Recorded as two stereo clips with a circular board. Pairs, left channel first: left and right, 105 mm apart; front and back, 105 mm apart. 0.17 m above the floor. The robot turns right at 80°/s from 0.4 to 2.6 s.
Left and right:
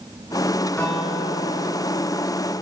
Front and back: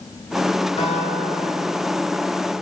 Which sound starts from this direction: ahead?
A guitar, at 0.8 s.